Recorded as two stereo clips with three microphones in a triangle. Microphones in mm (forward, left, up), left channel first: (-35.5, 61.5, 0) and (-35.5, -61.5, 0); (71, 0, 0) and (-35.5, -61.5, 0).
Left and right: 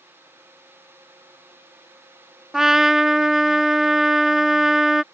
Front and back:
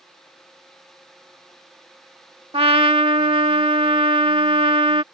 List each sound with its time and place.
2.5 s a trumpet: 175° right